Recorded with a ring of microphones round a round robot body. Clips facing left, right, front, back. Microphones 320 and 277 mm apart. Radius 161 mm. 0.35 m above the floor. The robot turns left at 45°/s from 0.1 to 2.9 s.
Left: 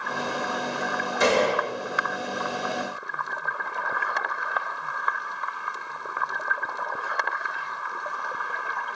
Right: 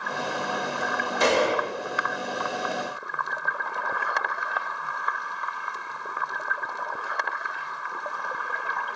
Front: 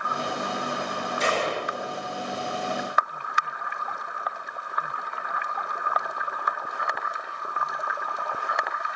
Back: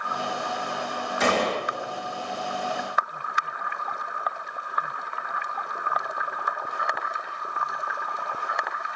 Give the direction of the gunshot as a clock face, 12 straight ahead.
7 o'clock.